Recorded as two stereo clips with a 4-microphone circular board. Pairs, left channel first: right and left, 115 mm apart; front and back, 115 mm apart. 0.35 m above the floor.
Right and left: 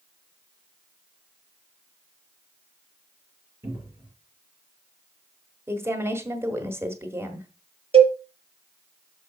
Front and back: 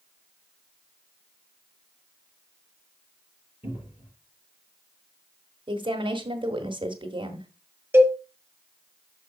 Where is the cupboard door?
40° left, 5.5 m.